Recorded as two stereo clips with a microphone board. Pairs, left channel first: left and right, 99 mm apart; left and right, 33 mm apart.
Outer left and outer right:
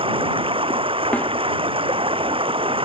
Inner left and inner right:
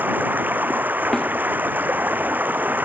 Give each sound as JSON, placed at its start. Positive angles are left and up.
{"t": 0.0, "sound": "running water", "side_deg": -65}
{"t": 1.1, "sound": "a snare drum", "side_deg": 15}